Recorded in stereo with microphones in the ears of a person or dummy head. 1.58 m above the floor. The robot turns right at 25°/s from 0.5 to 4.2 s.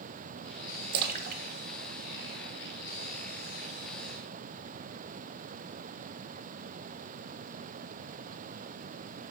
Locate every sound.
0.9 s a splash: 55° right (ahead or behind), 0.6 m; by 2.8 s 10° right (ahead or behind), 0.6 m